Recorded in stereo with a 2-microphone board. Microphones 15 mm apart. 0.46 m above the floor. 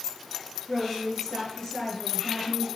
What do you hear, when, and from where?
0.7 s a woman speaking: 30° left (ahead or behind), 9 m